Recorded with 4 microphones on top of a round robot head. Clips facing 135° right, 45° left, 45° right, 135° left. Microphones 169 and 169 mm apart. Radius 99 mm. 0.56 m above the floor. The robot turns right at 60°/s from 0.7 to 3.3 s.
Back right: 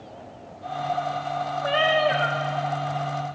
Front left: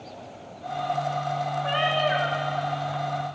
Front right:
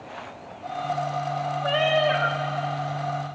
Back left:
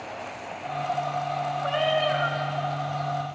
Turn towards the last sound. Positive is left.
turn(degrees=-15)